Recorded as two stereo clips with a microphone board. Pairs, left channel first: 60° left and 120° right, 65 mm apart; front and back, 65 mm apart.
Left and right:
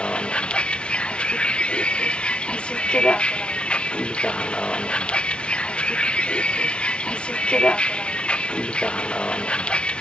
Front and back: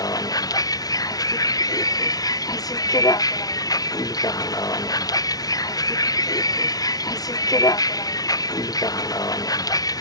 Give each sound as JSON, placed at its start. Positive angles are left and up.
{"t": 0.0, "sound": "a vehicle", "azimuth_deg": -10}